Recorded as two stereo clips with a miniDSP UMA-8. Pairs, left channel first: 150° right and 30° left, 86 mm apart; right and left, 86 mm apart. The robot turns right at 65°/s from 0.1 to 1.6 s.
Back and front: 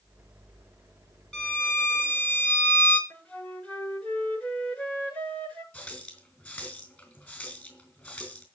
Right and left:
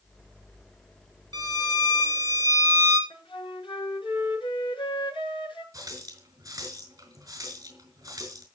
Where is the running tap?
140° left, 5 m.